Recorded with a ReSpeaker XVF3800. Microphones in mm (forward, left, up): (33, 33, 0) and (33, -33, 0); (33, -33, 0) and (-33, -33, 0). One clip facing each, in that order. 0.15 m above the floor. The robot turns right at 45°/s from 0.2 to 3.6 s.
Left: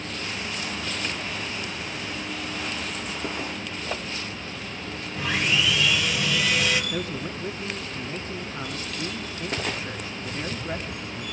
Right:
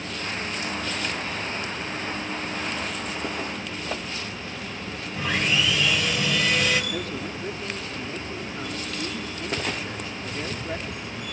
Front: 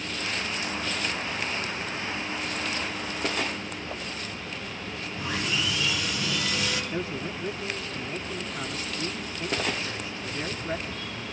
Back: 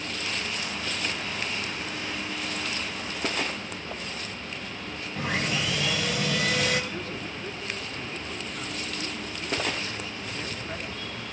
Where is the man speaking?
55° left, 1.8 m.